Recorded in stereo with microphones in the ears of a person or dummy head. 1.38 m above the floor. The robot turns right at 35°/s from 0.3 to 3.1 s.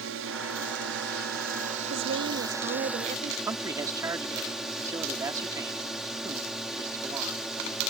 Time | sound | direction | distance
0.0 | a drone | 95° right | ?
1.9 | a woman speaking | 80° right | ?
3.5 | a man speaking | 20° right (ahead or behind) | ?